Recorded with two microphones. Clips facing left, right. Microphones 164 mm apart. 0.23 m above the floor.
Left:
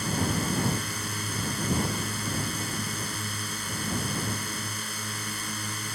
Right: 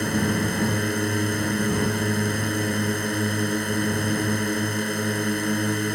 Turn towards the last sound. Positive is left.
turn(degrees=-60)  # may be behind; listen again after turning